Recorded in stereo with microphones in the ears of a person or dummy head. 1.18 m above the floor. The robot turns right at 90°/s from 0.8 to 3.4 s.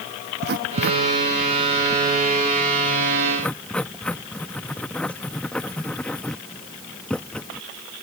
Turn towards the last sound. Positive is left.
turn(degrees=10)  # may be behind; listen again after turning